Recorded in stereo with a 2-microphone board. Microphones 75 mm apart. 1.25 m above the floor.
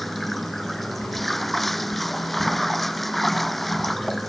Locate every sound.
0.0 s running water: centre (ahead or behind)